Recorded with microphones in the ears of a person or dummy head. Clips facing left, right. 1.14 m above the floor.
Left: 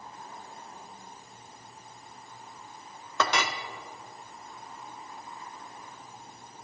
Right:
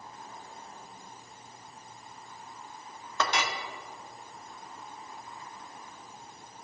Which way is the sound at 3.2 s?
70° left (ahead or behind).